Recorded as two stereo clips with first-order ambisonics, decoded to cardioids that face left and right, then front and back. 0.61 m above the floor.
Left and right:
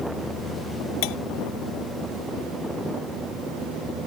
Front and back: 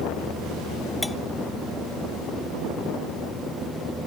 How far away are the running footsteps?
I don't hear running footsteps.